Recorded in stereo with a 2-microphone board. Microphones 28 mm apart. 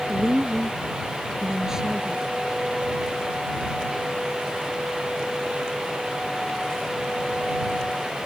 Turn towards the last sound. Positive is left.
turn(degrees=-20)  # may be behind; listen again after turning